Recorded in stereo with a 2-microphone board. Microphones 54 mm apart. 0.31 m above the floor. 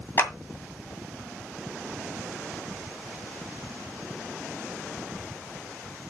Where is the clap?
50° left (ahead or behind), 2 m.